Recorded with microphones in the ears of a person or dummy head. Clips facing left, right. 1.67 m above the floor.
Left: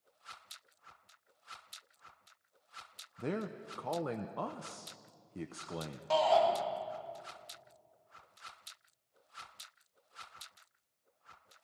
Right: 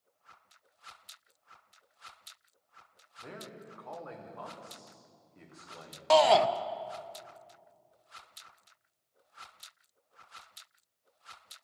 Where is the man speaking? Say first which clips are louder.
Left 9 dB; 55° left (ahead or behind), 0.9 m.